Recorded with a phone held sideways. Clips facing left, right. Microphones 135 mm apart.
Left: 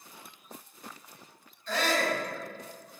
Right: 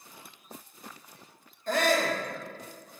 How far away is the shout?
About 1.7 m.